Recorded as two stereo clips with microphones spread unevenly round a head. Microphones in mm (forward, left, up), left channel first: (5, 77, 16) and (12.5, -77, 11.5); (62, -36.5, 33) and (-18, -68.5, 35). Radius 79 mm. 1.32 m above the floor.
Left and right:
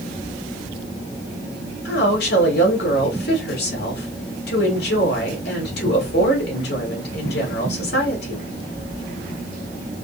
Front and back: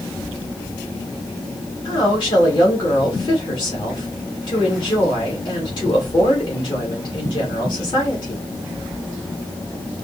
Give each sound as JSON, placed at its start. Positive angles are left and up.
{"t": 1.9, "sound": "a woman speaking", "azimuth_deg": 75, "distance_m": 2.5}